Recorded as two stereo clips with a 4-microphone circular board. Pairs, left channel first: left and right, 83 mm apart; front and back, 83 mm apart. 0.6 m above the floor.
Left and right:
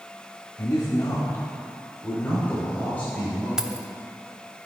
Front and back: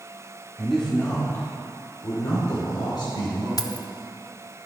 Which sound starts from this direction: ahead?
Keys jangling, at 3.6 s.